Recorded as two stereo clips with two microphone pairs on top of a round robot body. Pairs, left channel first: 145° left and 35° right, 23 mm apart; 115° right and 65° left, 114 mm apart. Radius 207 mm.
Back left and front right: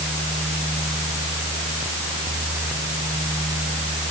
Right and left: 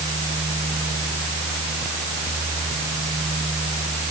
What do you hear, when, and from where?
Only background noise.